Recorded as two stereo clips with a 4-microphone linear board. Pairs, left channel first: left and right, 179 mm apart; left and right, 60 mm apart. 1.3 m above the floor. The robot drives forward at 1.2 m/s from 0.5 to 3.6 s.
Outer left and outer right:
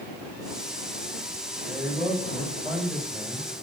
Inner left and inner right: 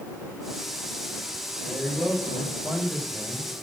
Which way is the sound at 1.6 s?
Centre (ahead or behind).